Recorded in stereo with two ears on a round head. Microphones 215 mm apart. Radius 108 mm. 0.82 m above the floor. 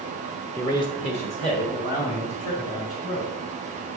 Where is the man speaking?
10° left (ahead or behind), 0.7 m; by 3.3 s 35° left (ahead or behind), 2.5 m.